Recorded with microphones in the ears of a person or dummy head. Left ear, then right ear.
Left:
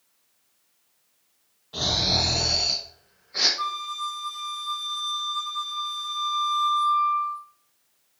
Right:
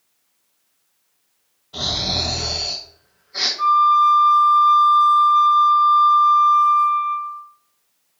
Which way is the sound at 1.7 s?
5° left (ahead or behind).